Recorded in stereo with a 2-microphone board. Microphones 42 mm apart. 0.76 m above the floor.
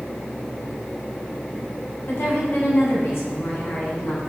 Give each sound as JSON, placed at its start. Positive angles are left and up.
{"t": 2.1, "sound": "a woman speaking", "side_deg": 80, "distance_m": 5.5}